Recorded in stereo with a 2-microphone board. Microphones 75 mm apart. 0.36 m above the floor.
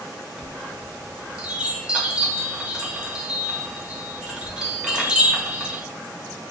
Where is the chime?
15° right (ahead or behind), 0.9 m.